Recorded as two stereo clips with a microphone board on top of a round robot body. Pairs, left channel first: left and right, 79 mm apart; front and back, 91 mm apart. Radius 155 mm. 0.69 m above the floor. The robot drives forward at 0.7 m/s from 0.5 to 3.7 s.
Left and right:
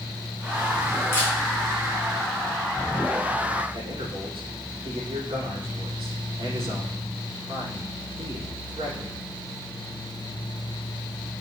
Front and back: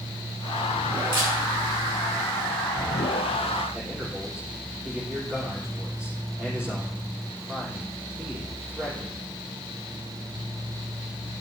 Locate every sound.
1.1 s a camera shutter: 150° left, 4 m
3.7 s a man speaking: 105° right, 4 m